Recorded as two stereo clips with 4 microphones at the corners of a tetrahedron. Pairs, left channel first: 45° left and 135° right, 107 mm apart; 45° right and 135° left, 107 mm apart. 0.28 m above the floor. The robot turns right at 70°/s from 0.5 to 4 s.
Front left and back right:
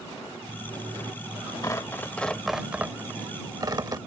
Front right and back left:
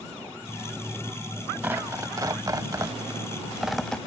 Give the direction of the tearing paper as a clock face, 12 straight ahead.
9 o'clock.